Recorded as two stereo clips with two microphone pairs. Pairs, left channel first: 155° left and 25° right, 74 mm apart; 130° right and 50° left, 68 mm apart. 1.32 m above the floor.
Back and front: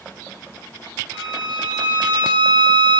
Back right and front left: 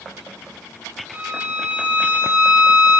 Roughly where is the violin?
Ahead.